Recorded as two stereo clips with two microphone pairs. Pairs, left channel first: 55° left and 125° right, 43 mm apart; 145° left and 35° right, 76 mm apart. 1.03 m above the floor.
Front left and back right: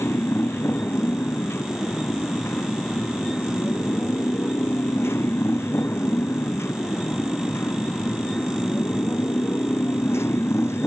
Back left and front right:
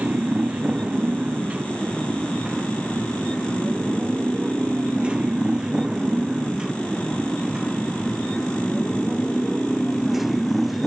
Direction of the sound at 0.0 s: 35° left.